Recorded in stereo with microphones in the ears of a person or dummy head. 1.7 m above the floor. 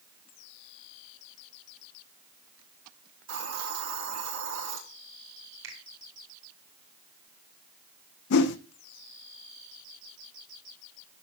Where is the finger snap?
70° right (ahead or behind), 5 m.